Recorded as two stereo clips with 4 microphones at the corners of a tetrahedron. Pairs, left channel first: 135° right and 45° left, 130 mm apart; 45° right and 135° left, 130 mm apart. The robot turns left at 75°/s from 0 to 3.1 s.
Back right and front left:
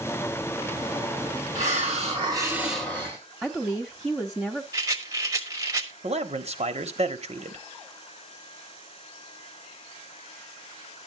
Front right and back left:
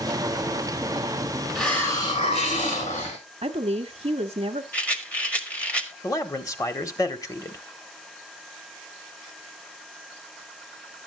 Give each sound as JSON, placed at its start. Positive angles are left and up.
{"t": 1.6, "sound": "a hiss", "azimuth_deg": 45, "distance_m": 3.5}
{"t": 3.4, "sound": "a woman speaking", "azimuth_deg": 130, "distance_m": 0.7}
{"t": 4.7, "sound": "a rattle", "azimuth_deg": 20, "distance_m": 1.2}
{"t": 6.0, "sound": "a man speaking", "azimuth_deg": 15, "distance_m": 1.1}